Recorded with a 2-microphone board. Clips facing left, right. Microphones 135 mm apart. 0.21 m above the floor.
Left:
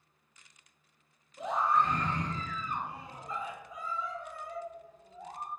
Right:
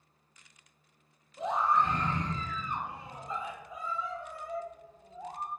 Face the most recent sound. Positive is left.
turn(degrees=-25)  # may be behind; listen again after turning